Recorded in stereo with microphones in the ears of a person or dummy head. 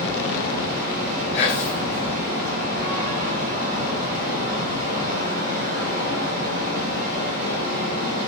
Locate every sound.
0.0 s a fan: 45° right (ahead or behind), 1.0 m
1.3 s whispering: 35° left (ahead or behind), 1.3 m